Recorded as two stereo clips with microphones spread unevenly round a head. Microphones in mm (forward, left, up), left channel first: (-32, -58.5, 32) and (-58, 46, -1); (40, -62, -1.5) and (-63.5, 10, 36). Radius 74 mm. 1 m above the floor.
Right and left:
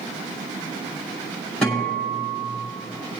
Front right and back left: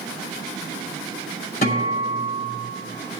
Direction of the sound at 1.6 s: 10° left.